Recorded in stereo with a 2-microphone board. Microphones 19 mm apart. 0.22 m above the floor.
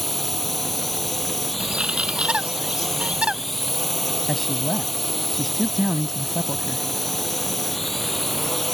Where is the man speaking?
5° left (ahead or behind).